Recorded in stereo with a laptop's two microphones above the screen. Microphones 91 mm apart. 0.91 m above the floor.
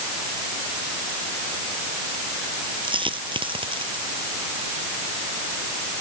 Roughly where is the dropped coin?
Right.